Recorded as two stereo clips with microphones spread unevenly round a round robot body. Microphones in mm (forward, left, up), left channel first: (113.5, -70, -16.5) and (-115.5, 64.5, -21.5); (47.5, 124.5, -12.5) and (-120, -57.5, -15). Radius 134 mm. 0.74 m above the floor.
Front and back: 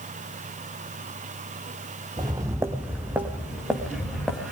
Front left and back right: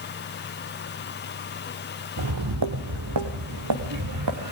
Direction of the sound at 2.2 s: 135° right.